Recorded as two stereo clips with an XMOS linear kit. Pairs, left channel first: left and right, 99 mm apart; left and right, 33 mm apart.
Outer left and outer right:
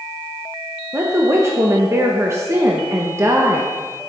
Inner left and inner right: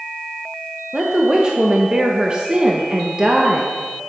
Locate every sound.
0.9 s a woman speaking: 30° right (ahead or behind), 1.0 m